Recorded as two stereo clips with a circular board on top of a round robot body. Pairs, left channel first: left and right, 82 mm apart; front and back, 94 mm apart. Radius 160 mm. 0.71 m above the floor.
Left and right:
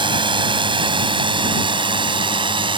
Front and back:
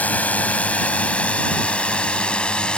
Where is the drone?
75° right; by 2.8 s 80° right.